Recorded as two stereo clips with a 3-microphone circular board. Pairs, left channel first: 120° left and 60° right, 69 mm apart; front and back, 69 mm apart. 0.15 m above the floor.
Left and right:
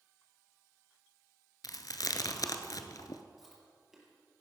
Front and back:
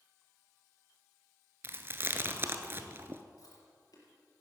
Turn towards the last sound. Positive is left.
turn(degrees=25)